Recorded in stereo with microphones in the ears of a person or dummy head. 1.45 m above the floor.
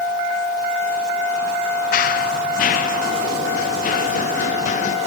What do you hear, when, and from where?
1.9 s running footsteps: 50° left (ahead or behind); by 5.0 s 45° left (ahead or behind)